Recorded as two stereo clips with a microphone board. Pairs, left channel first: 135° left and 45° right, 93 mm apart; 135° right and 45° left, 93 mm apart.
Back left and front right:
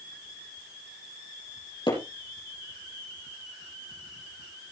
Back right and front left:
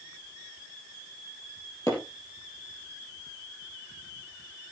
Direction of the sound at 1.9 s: 170° left.